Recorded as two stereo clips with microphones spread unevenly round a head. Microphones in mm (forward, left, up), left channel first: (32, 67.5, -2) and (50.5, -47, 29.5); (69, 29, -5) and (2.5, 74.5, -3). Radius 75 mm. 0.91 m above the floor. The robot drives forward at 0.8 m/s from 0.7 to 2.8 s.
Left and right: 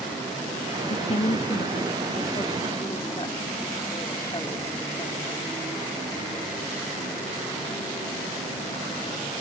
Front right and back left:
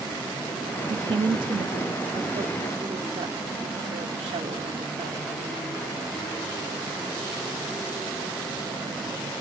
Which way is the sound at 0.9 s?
120° left.